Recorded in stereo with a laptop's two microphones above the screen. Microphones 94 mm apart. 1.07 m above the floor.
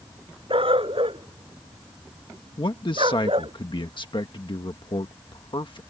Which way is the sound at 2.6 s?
55° left (ahead or behind).